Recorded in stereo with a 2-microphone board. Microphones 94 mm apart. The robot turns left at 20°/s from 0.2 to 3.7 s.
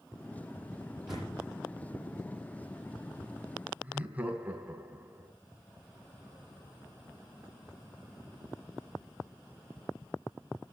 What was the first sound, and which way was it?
A door slam, 10° right (ahead or behind).